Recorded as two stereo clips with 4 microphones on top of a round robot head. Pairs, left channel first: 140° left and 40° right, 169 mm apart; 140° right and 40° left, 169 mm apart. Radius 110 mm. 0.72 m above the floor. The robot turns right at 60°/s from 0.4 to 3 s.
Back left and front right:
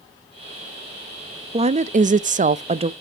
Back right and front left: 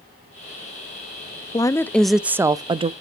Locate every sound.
1.5 s a woman speaking: 80° right, 0.6 m; by 2.9 s straight ahead, 0.6 m